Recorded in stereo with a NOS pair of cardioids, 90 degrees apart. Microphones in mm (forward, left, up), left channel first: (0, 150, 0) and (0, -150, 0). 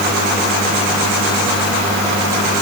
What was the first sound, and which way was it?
Only background noise.